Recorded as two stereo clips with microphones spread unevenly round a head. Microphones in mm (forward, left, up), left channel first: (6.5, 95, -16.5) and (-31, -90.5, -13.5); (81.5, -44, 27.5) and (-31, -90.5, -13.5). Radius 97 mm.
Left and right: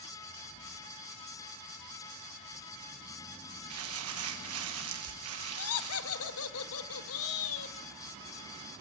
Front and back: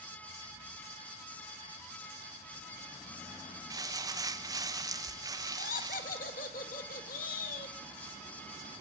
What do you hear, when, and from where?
3.7 s crumpling: 100° right, 1.7 m
5.6 s laughter: 65° left, 1.9 m